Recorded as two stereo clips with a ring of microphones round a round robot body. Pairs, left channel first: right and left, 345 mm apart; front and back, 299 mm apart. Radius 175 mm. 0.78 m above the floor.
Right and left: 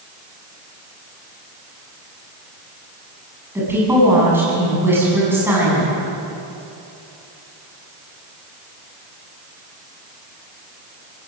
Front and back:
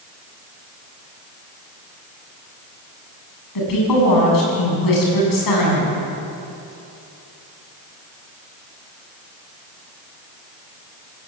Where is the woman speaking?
5° left, 8 m.